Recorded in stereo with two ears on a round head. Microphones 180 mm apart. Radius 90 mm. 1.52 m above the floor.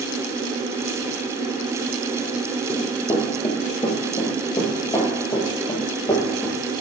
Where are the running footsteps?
25° left (ahead or behind), 1.6 m; by 6.6 s 20° left (ahead or behind), 3 m.